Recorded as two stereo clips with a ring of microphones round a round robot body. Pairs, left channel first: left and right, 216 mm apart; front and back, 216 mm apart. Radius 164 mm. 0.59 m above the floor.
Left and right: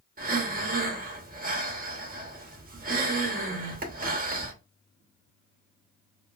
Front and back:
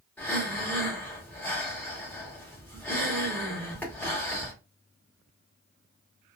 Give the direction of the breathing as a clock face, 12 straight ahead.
3 o'clock.